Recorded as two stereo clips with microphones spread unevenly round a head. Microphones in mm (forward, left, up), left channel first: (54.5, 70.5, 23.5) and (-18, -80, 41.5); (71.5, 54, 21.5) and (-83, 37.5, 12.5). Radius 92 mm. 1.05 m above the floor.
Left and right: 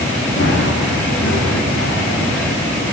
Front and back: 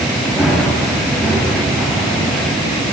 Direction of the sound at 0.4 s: 100° left.